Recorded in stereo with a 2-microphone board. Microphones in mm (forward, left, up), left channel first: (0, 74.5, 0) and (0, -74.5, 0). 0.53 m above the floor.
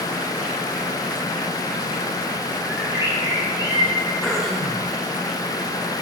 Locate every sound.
2.7 s a bird: 20° right (ahead or behind), 3.5 m
4.2 s throat clearing: 5° left (ahead or behind), 4.5 m